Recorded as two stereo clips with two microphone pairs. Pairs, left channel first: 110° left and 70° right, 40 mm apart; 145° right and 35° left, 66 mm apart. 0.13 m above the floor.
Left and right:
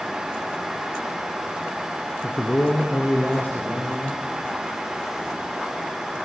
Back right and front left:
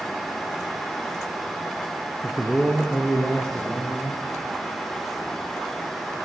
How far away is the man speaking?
About 3 m.